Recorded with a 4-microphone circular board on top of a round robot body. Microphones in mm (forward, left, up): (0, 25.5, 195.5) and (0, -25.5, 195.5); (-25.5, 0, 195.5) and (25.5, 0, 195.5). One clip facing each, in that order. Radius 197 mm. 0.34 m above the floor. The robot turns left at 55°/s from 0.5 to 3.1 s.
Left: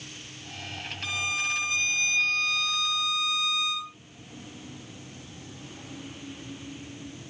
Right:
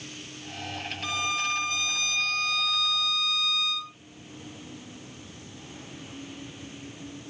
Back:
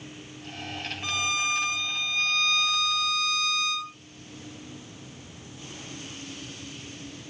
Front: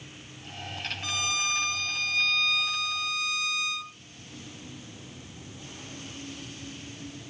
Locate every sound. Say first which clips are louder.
1.0 s a violin: right 1 dB, back 3 dB; 150° left, 1.4 m; by 4.0 s 35° left, 1.4 m